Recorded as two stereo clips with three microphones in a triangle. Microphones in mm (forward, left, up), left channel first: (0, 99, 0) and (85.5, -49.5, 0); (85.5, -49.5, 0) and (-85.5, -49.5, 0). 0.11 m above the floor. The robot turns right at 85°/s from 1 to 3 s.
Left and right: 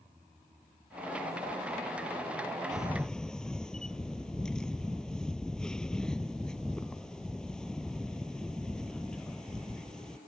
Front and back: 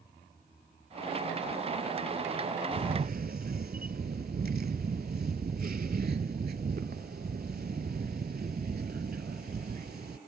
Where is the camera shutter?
Straight behind; by 10.2 s 155° right.